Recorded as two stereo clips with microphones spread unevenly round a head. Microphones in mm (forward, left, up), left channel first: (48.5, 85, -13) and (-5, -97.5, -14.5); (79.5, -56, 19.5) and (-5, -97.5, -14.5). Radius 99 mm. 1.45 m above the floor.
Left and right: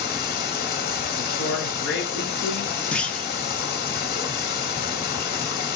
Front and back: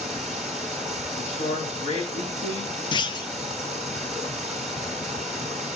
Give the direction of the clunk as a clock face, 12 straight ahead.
12 o'clock.